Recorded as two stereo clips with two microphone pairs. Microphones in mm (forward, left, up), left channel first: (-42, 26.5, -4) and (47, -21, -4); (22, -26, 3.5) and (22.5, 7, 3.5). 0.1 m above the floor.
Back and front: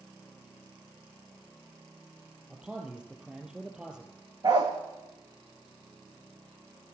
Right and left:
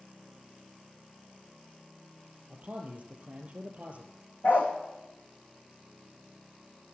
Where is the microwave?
No microwave in this recording.